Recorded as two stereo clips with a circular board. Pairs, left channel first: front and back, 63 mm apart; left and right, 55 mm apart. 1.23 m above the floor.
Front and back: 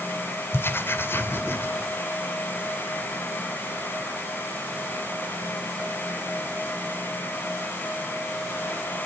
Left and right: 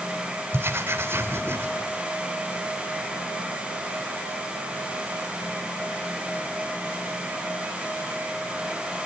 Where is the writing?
50° right, 2.5 m.